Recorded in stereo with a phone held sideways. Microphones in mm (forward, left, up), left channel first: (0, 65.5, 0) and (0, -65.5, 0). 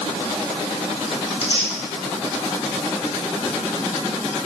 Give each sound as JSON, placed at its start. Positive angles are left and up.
{"t": 1.3, "sound": "tearing paper", "side_deg": 45, "distance_m": 0.7}